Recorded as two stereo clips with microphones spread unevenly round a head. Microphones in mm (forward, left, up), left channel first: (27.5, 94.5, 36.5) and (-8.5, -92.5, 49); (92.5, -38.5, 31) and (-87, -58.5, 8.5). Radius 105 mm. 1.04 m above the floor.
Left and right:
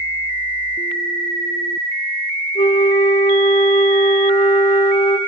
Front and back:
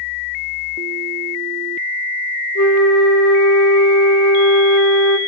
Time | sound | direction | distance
2.5 | a flute | 20° left | 1.8 m